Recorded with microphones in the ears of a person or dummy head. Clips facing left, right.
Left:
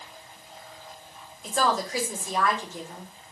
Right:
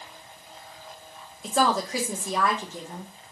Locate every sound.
1.4 s a woman speaking: 65° right (ahead or behind), 1.8 m